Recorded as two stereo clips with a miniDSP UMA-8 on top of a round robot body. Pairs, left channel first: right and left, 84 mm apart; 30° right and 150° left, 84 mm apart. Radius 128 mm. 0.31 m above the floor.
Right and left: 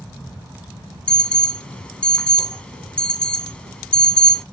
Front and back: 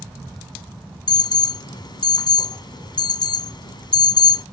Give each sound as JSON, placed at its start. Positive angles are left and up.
{"t": 1.1, "sound": "an alarm", "azimuth_deg": -15, "distance_m": 1.0}